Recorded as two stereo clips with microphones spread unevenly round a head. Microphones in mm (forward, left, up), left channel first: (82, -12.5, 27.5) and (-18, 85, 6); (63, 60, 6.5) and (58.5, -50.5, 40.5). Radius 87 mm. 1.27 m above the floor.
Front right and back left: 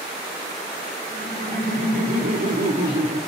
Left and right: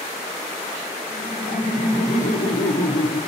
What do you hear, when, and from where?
1.1 s laughter: 125° left, 3.5 m; by 3.2 s 90° left, 3 m